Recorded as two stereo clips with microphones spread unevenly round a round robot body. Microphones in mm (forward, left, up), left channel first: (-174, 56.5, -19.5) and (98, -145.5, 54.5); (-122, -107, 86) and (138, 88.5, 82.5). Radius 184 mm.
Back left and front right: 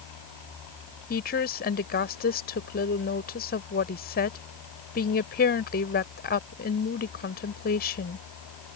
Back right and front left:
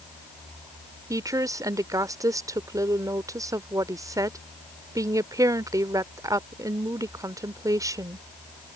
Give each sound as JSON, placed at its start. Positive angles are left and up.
{"t": 1.1, "sound": "a woman speaking", "azimuth_deg": 115}